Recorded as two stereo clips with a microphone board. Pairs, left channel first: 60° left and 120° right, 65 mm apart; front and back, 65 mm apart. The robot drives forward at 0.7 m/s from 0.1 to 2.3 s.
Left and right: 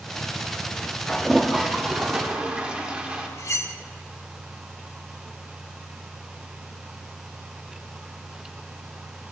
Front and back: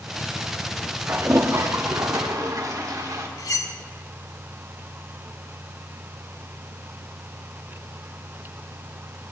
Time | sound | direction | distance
1.1 | a toilet flushing | 135° left | 0.7 m
3.4 | cutlery clinking | 20° left | 0.9 m